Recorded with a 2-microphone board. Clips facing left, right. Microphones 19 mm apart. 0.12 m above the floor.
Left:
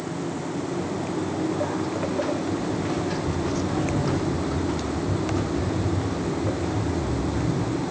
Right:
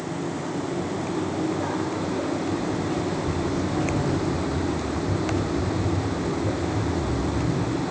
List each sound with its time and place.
0.7 s footsteps: 85° left, 3.5 m; by 7.8 s 5° left (ahead or behind), 4 m